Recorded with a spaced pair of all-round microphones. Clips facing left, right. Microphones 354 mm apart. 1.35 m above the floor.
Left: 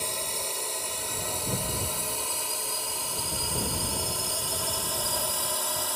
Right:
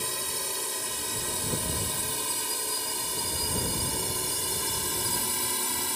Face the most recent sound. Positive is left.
turn(degrees=-35)  # may be behind; listen again after turning